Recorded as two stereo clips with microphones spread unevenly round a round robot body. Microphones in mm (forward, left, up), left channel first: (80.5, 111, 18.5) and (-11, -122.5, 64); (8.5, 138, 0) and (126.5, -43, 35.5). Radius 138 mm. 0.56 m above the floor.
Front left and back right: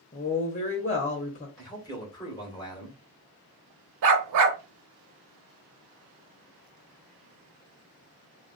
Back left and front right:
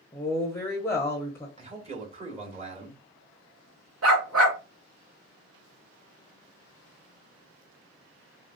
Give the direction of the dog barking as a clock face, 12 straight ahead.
3 o'clock.